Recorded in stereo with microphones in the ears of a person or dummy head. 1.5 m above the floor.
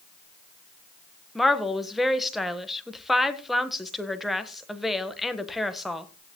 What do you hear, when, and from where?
1.4 s a woman speaking: 5° right (ahead or behind), 1.3 m